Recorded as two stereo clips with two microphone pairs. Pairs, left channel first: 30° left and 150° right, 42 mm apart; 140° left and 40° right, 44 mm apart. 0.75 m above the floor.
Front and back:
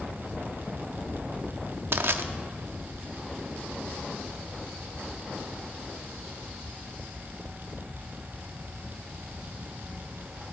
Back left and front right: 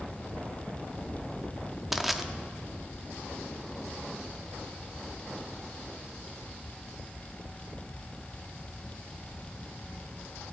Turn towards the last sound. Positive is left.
turn(degrees=-125)